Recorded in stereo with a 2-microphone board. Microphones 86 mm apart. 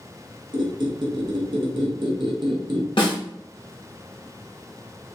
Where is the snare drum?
65° left (ahead or behind), 1.2 m.